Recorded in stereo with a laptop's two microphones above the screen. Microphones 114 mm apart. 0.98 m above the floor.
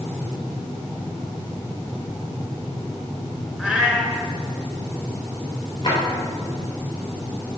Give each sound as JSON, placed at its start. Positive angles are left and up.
{"t": 3.6, "sound": "a cat meowing", "side_deg": -5, "distance_m": 1.6}
{"t": 5.8, "sound": "a drawer", "side_deg": 40, "distance_m": 2.5}